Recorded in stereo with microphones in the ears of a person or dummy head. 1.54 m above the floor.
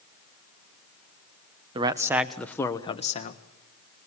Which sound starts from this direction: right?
A man speaking, at 1.8 s.